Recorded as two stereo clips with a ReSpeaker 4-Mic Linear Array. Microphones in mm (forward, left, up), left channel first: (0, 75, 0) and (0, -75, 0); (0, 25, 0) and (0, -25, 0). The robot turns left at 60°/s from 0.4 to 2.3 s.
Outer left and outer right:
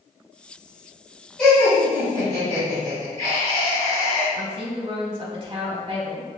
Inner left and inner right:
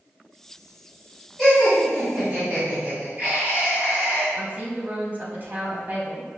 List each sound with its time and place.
1.4 s laughter: 5° left, 1.9 m; by 4.2 s 45° right, 1.9 m
4.3 s a woman speaking: 35° right (ahead or behind), 1.2 m